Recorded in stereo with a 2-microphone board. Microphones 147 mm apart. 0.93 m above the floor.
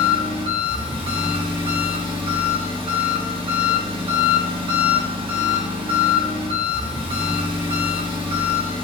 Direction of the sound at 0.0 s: 35° right (ahead or behind).